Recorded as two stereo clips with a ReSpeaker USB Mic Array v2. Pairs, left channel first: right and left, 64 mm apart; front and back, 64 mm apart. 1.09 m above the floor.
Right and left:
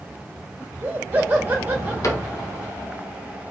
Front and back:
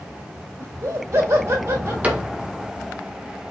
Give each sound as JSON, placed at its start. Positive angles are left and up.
{"t": 0.6, "sound": "laughter", "azimuth_deg": 150, "distance_m": 2.0}
{"t": 2.0, "sound": "a cupboard door", "azimuth_deg": -115, "distance_m": 1.1}